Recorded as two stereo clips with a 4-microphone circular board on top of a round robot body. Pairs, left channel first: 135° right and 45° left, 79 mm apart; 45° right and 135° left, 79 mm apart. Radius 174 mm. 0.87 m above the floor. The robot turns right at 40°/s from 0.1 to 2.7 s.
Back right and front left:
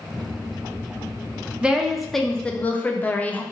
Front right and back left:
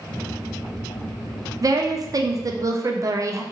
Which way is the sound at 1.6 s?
120° left.